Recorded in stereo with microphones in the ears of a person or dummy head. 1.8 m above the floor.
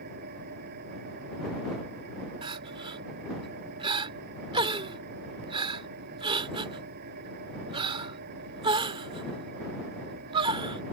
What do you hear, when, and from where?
0.0 s an engine running: 60° right (ahead or behind)
2.4 s crying: 25° right (ahead or behind)